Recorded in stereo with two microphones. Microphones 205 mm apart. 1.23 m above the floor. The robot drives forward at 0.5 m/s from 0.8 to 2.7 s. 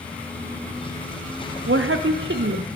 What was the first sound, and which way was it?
A woman speaking, 70° right (ahead or behind).